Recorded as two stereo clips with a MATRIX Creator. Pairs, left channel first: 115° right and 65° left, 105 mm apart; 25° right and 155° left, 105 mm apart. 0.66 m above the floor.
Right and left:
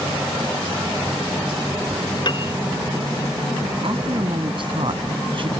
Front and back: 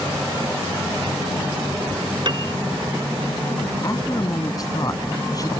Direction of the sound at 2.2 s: 155° right.